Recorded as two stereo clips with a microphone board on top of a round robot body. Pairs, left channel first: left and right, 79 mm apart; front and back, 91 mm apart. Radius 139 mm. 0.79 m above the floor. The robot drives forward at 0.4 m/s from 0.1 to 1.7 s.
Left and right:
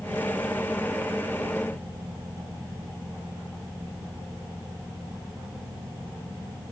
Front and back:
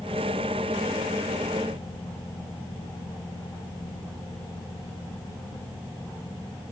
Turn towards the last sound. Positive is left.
No sound to turn to.